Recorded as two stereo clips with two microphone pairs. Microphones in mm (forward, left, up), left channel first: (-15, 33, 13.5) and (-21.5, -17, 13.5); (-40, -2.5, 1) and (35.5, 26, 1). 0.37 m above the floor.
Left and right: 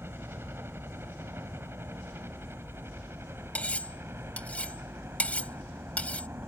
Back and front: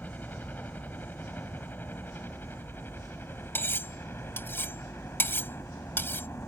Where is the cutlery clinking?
140° left.